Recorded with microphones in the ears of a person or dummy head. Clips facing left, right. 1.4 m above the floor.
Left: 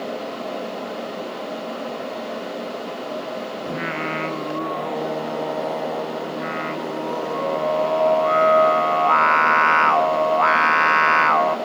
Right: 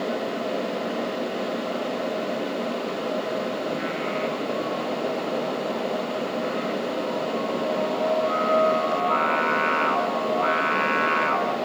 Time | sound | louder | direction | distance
3.7 | singing | even | 60° left (ahead or behind) | 1.3 m